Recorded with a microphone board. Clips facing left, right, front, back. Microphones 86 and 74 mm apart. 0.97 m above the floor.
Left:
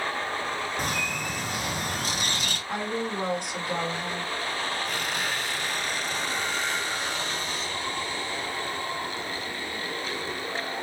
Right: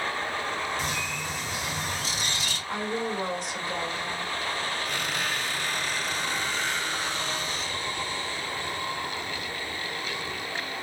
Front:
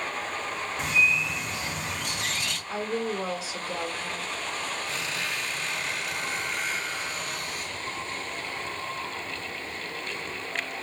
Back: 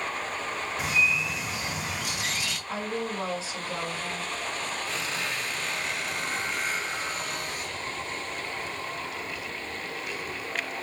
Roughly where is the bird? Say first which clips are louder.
Left 2 dB, front 2 dB; left.